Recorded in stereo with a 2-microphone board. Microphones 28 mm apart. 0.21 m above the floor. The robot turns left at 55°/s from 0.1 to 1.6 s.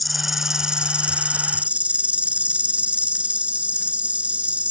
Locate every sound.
0.0 s an insect: straight ahead; by 4.7 s 80° right